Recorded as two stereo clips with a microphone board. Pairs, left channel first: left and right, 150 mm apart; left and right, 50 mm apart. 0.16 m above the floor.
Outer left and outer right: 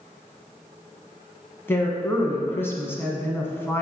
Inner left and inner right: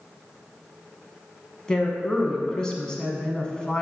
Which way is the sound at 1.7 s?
15° left (ahead or behind).